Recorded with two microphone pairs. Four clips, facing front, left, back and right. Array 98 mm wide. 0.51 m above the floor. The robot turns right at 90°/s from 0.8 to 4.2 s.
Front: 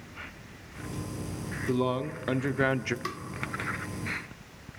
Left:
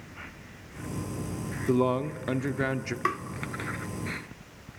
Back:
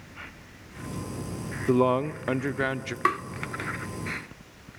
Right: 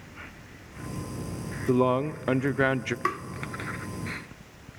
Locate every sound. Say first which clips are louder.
1.7 s a man speaking: right 2 dB, back 6 dB; 170° right, 0.8 m; by 3.0 s 55° right, 0.8 m
3.0 s tapping: left 1 dB, back 11 dB; straight behind, 0.9 m; by 3.2 s 165° right, 0.9 m